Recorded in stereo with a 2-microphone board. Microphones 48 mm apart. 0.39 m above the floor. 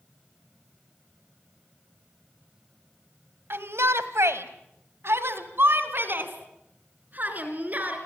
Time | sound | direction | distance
3.5 | a shout | 55° right (ahead or behind) | 2 m